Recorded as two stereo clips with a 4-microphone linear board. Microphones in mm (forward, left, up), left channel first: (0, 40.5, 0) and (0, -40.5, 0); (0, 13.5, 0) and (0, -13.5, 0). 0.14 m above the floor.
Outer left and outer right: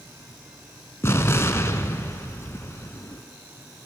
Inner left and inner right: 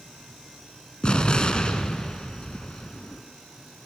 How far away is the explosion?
About 0.5 m.